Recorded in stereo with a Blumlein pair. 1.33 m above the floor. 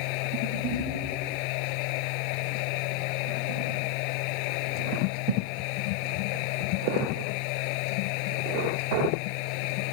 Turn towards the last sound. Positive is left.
turn(degrees=45)